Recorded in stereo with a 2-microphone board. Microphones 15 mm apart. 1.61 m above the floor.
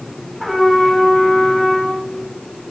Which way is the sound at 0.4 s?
10° left (ahead or behind).